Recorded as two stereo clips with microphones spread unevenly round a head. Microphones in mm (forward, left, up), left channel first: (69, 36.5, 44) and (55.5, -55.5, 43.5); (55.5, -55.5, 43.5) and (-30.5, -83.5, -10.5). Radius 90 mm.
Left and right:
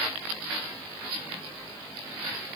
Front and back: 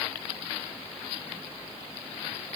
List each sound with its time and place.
Only background noise.